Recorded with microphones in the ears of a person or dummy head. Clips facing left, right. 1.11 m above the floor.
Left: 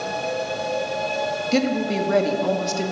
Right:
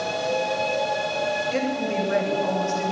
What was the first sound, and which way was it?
A woman speaking, 50° left (ahead or behind).